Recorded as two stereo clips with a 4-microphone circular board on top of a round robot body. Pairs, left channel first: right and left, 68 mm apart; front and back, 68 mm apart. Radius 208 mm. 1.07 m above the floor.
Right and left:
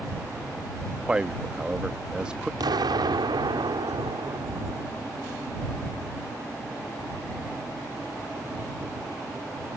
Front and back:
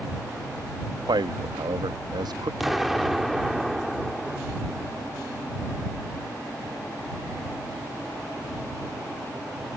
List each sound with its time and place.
1.1 s a man speaking: 170° left
2.6 s an explosion: 95° left